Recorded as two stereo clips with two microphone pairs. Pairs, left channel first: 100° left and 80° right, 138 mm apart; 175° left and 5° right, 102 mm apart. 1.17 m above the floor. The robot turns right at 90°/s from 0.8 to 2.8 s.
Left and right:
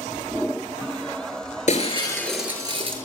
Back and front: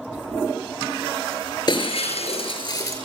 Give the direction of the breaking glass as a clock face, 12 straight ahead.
8 o'clock.